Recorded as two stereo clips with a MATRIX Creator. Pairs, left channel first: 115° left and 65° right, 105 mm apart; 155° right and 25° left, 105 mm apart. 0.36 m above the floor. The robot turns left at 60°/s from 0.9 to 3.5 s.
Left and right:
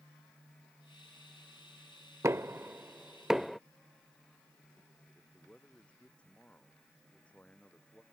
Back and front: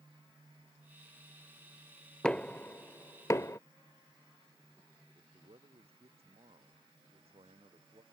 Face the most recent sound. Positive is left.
turn(degrees=35)